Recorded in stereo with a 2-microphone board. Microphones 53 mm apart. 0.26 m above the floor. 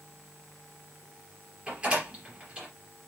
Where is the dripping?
I don't hear dripping.